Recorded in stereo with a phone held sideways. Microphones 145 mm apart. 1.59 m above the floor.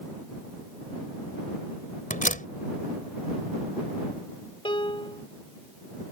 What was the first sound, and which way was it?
A door slam, 65° left (ahead or behind).